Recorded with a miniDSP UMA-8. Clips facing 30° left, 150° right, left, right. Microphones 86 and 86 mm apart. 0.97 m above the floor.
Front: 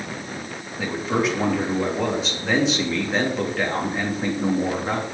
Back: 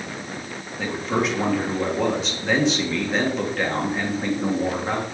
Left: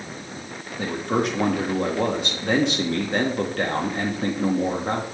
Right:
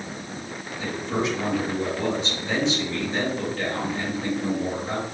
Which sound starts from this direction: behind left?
A man speaking, at 0.8 s.